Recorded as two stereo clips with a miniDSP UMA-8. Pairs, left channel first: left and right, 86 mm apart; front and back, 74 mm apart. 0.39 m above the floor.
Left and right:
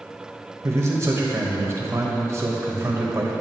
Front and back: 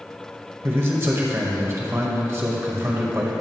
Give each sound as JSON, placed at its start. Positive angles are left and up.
{"t": 0.6, "sound": "a man speaking", "azimuth_deg": -135, "distance_m": 1.8}